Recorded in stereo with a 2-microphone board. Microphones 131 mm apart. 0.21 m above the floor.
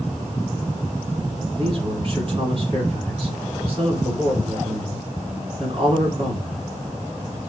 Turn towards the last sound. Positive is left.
turn(degrees=-45)  # may be behind; listen again after turning